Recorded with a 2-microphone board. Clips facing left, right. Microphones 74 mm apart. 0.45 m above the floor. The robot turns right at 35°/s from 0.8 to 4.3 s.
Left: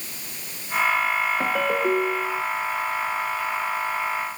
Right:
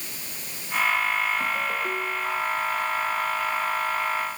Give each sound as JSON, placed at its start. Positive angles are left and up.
{"t": 1.4, "sound": "a ringtone", "azimuth_deg": 80}